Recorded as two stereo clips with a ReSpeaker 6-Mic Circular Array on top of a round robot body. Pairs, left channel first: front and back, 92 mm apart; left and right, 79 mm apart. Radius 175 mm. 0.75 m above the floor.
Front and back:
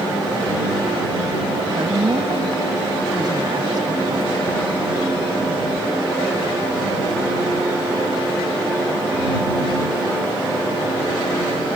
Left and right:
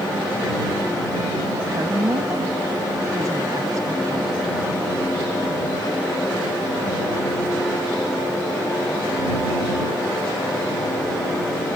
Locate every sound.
1.6 s a woman speaking: 140° right